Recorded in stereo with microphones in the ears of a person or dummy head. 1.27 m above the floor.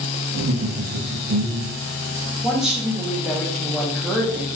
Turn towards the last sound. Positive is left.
turn(degrees=0)  # may be behind; listen again after turning